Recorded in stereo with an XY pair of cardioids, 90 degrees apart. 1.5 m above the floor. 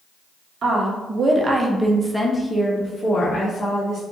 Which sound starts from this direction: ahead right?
A woman speaking, at 0.6 s.